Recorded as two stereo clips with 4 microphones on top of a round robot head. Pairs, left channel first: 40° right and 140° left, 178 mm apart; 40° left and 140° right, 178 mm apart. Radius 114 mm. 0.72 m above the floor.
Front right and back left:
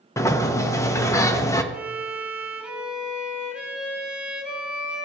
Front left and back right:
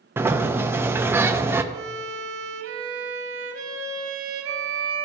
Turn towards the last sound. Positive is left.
turn(degrees=-135)